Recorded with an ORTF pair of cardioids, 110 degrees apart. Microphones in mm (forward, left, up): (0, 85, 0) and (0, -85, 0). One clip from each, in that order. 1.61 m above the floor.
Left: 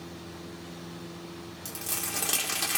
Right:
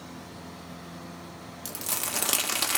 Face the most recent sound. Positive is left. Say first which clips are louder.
# right 2 dB
turn(degrees=-30)